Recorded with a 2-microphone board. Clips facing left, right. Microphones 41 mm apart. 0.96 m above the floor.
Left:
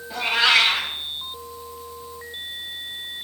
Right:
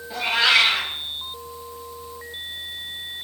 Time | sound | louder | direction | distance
0.1 | a cat meowing | even | centre (ahead or behind) | 2 m